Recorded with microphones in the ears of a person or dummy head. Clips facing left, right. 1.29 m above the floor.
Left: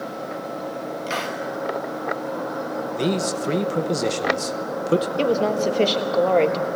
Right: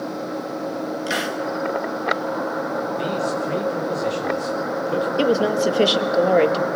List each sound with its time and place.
1.1 s a hiss: 15° right (ahead or behind), 1.2 m
3.0 s a man speaking: 55° left (ahead or behind), 1.0 m
5.2 s a woman speaking: 10° right (ahead or behind), 1.2 m